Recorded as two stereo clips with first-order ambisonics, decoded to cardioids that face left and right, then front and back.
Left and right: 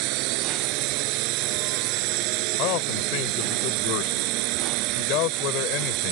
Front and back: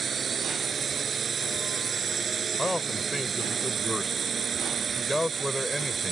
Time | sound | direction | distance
0.0 | a drone | 110° right | ?
2.6 | a man speaking | 85° left | ?